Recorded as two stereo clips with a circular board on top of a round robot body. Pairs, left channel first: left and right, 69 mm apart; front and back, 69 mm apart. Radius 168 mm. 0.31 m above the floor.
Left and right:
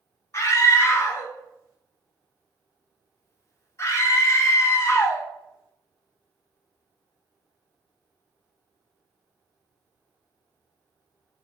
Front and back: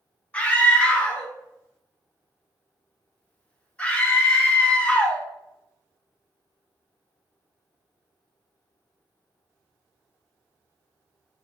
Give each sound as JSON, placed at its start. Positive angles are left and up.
{"t": 0.3, "sound": "a scream", "azimuth_deg": 65, "distance_m": 1.7}